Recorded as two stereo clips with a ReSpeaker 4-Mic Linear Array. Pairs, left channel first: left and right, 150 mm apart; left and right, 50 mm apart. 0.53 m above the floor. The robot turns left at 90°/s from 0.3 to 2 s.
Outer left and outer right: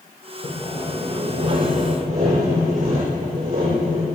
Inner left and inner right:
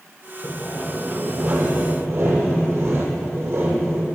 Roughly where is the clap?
No clap in this recording.